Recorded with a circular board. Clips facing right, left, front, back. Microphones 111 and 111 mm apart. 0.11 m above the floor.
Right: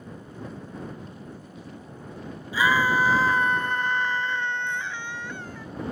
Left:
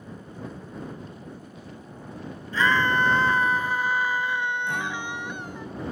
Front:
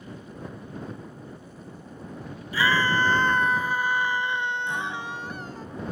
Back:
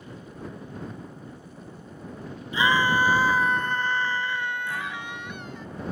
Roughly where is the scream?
Behind right.